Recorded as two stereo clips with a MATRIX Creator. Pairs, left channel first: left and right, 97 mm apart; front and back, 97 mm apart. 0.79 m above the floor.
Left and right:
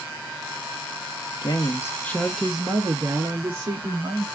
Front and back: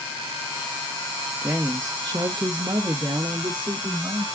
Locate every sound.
1.4 s a woman speaking: 120° left, 0.8 m; by 4.2 s 135° right, 1.4 m